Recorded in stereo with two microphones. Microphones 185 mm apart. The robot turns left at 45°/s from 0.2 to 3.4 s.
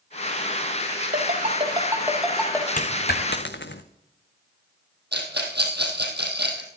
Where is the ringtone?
50° right (ahead or behind), 3 m; by 2.7 s 15° left (ahead or behind), 3 m.